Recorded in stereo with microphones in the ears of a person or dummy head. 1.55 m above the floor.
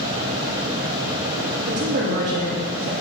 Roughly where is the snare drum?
I don't hear a snare drum.